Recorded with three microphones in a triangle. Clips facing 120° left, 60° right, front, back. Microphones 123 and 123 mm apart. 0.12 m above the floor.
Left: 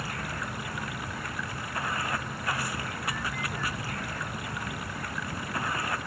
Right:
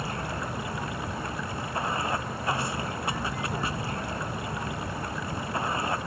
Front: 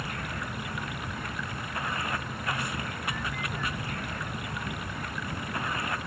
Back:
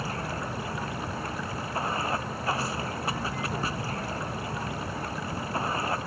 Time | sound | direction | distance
0.0 | running water | 125° right | ?